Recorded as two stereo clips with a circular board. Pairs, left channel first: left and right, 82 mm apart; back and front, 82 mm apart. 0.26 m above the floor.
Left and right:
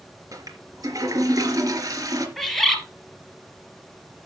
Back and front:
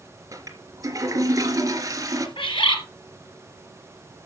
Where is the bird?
175° left, 2.5 m.